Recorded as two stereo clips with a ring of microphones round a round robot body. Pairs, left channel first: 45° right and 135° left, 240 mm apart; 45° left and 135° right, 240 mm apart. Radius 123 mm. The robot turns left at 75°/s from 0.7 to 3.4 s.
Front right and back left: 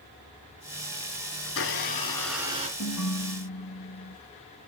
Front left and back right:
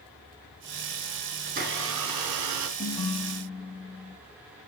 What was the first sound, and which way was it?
A blender, 70° right.